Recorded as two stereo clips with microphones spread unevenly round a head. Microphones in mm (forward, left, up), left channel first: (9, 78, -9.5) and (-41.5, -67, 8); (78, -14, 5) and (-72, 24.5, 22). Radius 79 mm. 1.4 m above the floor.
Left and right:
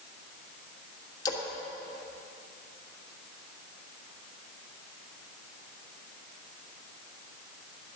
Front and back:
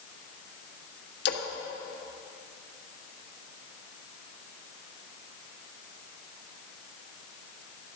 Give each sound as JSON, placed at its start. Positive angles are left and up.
{"t": 1.2, "sound": "a splash", "azimuth_deg": 0, "distance_m": 1.5}